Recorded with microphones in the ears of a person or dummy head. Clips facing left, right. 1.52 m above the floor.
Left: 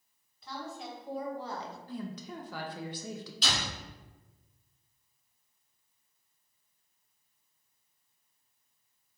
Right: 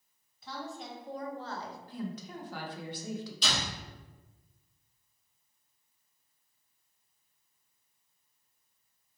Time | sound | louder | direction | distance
0.4 | a woman speaking | even | centre (ahead or behind) | 1.3 m
1.9 | a woman speaking | right 1 dB | 70° left (ahead or behind) | 0.6 m
3.4 | a door slam | left 3 dB | 5° left (ahead or behind) | 1.9 m